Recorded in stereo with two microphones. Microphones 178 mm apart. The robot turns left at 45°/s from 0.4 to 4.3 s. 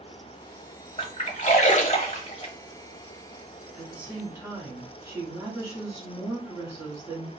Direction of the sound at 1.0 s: 35° left (ahead or behind).